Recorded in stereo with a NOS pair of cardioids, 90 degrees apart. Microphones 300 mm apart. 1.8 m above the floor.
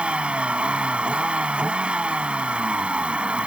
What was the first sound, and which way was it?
A vehicle, 5° right.